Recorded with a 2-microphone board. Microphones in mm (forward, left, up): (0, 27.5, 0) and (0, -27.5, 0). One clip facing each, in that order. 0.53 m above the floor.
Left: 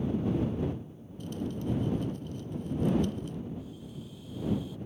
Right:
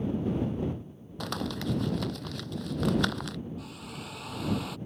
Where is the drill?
70° right (ahead or behind).